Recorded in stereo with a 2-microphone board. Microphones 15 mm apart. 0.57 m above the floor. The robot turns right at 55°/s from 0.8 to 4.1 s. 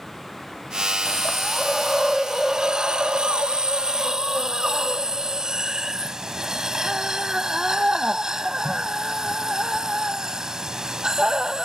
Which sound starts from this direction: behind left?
A hiss, at 1.1 s.